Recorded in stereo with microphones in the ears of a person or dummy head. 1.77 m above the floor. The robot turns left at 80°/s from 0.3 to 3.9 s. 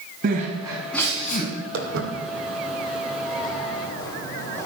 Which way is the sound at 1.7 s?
60° right (ahead or behind).